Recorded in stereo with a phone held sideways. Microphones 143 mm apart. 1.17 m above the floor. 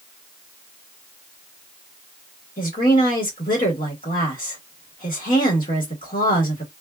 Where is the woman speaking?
70° left (ahead or behind), 1.4 m.